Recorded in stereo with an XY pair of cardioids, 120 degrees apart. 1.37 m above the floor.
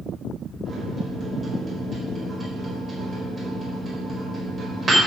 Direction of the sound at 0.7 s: 25° right.